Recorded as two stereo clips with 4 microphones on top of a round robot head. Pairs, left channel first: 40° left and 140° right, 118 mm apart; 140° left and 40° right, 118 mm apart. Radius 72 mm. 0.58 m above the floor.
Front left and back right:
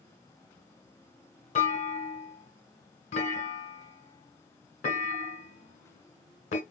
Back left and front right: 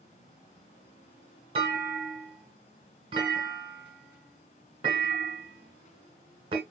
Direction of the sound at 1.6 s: 10° left.